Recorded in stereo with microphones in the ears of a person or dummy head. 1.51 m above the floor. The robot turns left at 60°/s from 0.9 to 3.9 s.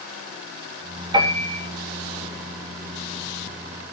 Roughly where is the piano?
Right.